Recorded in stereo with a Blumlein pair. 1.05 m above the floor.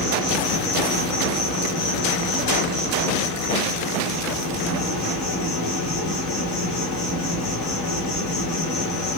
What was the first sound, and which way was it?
An insect, 35° left.